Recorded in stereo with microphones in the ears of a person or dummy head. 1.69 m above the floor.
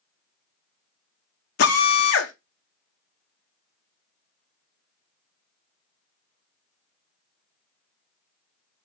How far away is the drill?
About 1.3 m.